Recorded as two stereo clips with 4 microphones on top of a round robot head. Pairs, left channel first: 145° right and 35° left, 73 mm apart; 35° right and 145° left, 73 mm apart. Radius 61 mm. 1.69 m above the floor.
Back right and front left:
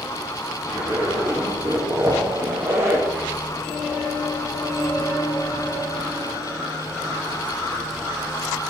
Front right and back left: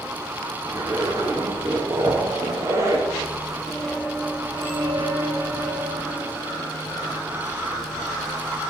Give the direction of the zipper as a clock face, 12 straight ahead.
9 o'clock.